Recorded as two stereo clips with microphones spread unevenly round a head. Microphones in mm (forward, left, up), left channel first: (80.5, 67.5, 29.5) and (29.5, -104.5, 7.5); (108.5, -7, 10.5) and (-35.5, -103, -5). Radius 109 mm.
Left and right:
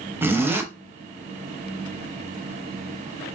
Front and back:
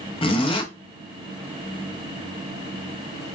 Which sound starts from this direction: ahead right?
A zipper, at 0.2 s.